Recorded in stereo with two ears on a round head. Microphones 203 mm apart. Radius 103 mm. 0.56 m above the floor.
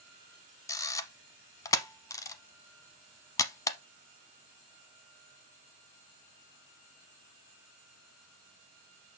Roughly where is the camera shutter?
Centre.